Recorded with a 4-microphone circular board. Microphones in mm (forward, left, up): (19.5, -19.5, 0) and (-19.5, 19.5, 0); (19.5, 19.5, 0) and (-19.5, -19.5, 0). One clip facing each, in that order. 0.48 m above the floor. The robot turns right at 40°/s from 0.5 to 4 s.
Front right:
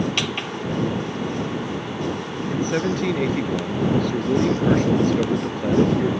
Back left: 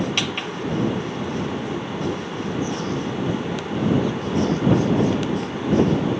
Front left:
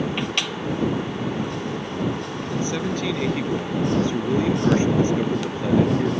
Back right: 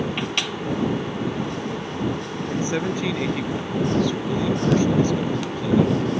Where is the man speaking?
75° right; by 6.1 s 15° right.